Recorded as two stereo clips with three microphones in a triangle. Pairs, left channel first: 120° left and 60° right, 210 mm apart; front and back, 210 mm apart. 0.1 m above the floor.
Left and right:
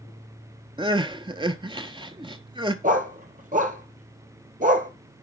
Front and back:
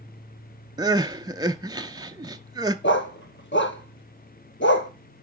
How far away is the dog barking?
About 1.0 m.